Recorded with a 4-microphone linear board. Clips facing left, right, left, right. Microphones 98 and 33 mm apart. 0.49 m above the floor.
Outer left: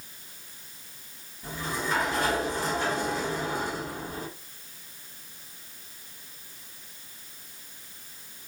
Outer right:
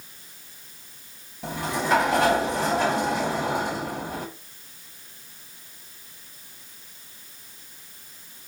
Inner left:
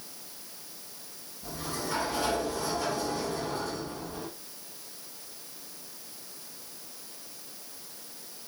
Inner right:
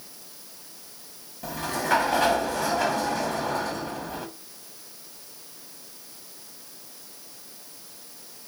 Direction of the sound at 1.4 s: 75° right (ahead or behind).